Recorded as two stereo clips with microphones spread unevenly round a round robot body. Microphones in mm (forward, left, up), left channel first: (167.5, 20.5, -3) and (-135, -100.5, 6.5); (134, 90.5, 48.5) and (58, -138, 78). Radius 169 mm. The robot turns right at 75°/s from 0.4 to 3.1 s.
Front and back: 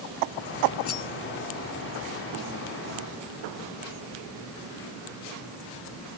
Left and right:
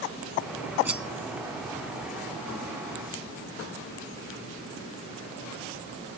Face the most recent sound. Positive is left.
turn(degrees=140)